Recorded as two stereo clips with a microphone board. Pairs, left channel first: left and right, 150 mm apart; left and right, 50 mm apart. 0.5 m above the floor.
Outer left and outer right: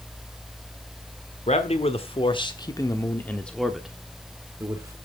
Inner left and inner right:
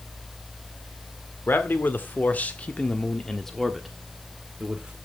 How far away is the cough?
No cough in this recording.